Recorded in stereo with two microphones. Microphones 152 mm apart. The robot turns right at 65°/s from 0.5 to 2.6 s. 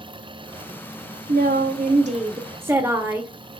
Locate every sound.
1.3 s a woman speaking: 100° right, 0.6 m; by 3.3 s 15° right, 0.6 m